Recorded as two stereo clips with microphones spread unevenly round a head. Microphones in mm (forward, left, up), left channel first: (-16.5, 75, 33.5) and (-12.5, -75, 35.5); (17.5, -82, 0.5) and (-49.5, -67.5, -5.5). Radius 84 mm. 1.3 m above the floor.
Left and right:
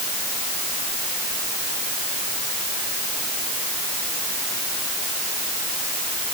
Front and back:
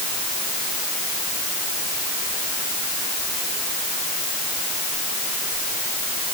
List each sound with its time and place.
Only background noise.